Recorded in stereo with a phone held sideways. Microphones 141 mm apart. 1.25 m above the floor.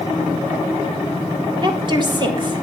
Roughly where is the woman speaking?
Right.